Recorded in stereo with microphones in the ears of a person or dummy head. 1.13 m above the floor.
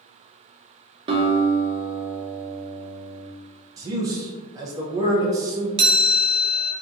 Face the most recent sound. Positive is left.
turn(degrees=-25)  # may be behind; listen again after turning